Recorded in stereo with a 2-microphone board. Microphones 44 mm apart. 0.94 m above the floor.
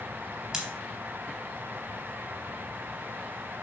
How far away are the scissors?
About 3.5 m.